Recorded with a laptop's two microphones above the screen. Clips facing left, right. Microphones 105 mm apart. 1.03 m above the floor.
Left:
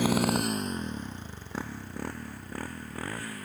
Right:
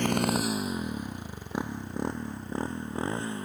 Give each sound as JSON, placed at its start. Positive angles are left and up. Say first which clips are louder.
{"t": 0.0, "sound": "a motorcycle", "louder": "left 1 dB", "side_deg": 5}